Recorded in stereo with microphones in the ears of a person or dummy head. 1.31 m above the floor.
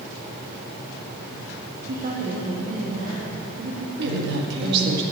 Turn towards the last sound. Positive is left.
turn(degrees=-65)  # may be behind; listen again after turning